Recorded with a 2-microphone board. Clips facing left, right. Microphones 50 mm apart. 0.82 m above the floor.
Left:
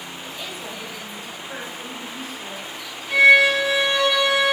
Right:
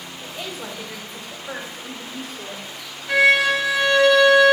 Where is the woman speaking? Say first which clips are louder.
Right 3 dB; 40° right (ahead or behind), 3 m; by 2.6 s 75° right (ahead or behind), 2 m.